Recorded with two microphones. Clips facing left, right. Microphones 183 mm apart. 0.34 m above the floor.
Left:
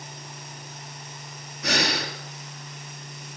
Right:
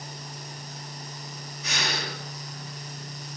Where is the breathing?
70° left (ahead or behind), 4.5 m.